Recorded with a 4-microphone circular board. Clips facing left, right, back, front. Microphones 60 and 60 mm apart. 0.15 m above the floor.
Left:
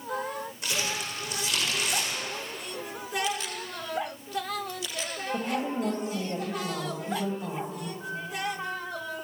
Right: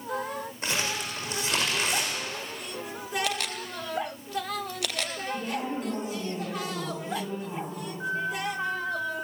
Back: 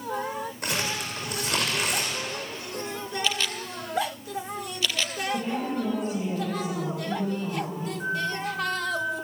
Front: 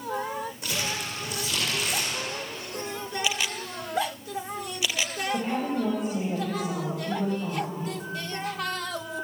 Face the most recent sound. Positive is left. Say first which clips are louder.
# right 5 dB, back 5 dB
turn(degrees=-120)